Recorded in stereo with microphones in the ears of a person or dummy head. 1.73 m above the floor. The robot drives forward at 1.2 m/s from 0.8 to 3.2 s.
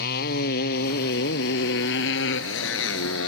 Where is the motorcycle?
60° left (ahead or behind); by 3.3 s 85° left.